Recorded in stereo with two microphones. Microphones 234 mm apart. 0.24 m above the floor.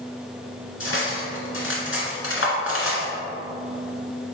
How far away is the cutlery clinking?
About 1.8 m.